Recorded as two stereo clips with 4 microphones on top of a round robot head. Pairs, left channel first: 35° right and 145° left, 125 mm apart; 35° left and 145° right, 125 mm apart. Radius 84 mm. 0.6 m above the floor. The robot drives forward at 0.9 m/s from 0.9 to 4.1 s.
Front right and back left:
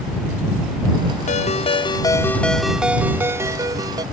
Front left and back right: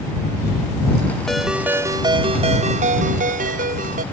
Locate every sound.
1.3 s a ringtone: 55° right; by 4.0 s 155° right